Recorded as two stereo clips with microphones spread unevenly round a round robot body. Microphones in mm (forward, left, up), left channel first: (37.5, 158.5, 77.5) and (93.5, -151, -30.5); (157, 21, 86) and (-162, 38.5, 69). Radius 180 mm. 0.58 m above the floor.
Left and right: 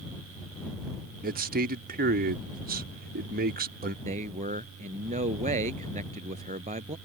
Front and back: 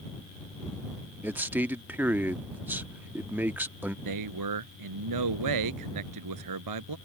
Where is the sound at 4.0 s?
150° right.